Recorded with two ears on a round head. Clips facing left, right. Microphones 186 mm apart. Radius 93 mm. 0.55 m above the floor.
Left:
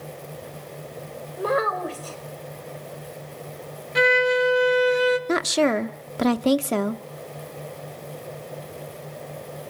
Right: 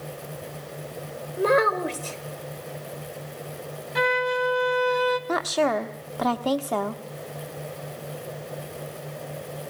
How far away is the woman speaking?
About 0.8 m.